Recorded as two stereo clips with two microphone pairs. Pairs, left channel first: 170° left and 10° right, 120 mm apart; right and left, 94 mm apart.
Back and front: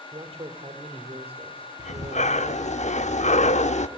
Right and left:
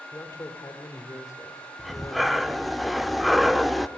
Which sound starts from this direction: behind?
Breathing, at 1.8 s.